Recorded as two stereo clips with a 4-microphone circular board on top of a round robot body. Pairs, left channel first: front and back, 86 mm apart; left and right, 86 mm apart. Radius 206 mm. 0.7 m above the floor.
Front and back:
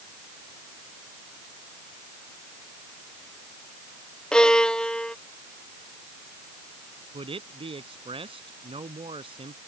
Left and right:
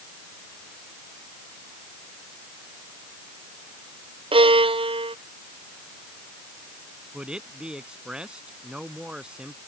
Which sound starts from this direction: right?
A violin, at 4.3 s.